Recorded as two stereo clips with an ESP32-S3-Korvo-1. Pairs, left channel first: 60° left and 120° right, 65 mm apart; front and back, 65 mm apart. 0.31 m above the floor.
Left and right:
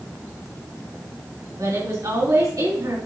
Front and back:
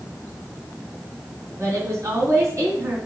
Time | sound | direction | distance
1.6 | a woman speaking | 140° right | 3.5 m